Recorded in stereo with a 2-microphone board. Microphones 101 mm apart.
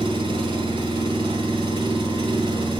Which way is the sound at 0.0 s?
50° right (ahead or behind).